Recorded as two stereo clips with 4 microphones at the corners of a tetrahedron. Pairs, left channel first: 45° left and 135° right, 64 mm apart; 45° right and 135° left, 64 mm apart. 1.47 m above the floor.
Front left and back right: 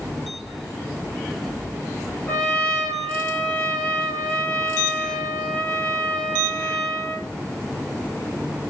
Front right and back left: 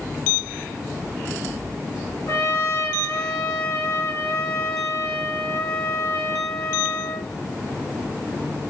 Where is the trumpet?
20° right, 2.5 m.